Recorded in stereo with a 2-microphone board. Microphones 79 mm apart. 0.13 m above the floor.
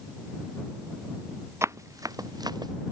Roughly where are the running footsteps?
Right.